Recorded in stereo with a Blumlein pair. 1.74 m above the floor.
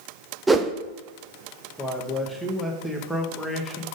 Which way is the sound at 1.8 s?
Straight ahead.